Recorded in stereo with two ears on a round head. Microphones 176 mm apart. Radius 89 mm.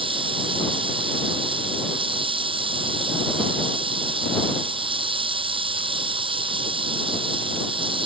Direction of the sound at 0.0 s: 30° right (ahead or behind).